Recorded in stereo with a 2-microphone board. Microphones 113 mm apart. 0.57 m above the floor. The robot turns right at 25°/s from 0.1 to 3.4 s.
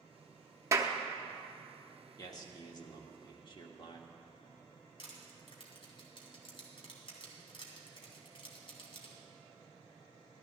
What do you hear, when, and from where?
0.7 s a clap: 25° right (ahead or behind), 0.8 m
2.2 s a man speaking: 50° left, 1.3 m; by 4.1 s 80° left, 1.3 m
5.0 s crushing: 50° left (ahead or behind), 2.5 m